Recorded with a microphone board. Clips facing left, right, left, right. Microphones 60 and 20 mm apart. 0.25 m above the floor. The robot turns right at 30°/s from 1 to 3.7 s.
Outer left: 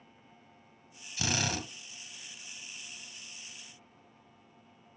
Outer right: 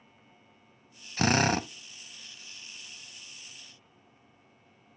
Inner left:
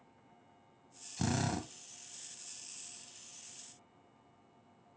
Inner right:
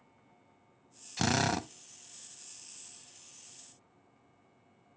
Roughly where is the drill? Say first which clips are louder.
Outer right 9 dB, inner right 6 dB; right.